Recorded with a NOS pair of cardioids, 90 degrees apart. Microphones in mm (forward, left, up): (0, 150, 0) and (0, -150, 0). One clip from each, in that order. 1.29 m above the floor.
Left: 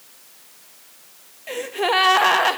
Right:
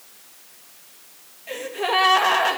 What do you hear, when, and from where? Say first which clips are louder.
1.5 s a gasp: left 2 dB; 30° left, 1.5 m